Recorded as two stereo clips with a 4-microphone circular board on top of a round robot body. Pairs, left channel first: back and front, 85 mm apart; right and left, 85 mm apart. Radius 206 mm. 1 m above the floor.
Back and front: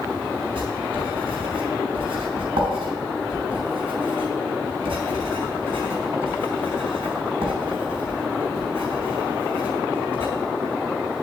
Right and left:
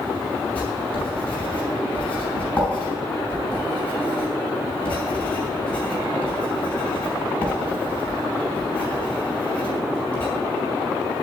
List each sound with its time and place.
0.6 s writing: 15° right, 5.5 m